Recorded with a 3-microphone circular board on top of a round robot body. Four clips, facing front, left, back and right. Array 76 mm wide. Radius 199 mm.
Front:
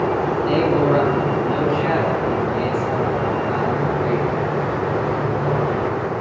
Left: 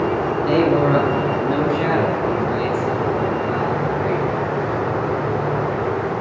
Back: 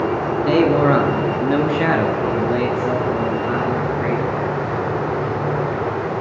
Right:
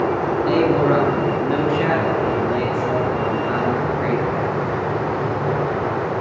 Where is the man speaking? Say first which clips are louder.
Left 1 dB, back 4 dB; 175° left, 6 m; by 4.3 s 145° right, 7.5 m.